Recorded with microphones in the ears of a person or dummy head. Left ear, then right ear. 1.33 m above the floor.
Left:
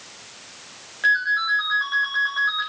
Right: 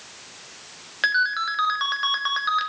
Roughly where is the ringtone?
Right.